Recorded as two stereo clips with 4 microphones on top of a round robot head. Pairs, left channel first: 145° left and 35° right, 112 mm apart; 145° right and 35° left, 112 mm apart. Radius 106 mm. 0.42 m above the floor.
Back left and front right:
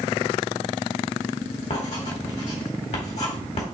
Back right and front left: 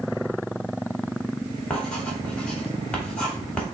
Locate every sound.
1.7 s writing: 135° left, 3 m